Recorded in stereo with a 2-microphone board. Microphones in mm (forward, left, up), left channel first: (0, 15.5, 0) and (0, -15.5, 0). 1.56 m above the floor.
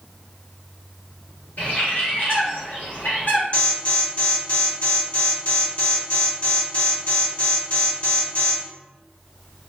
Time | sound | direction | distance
1.6 | a bird | 70° left (ahead or behind) | 1.6 m
3.5 | an alarm | 45° left (ahead or behind) | 1.1 m